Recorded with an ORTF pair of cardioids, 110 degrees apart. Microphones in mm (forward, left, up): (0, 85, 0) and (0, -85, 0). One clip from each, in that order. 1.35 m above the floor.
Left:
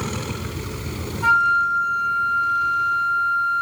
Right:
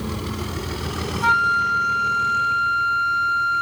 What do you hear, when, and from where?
1.2 s a flute: 25° right, 1.1 m